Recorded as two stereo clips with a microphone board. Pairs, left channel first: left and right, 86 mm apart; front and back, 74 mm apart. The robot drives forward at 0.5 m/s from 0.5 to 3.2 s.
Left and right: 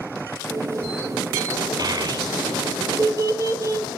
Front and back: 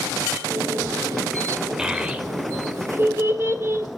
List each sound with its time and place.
1.8 s a child speaking: 100° right, 1.3 m; by 3.9 s 130° right, 1.6 m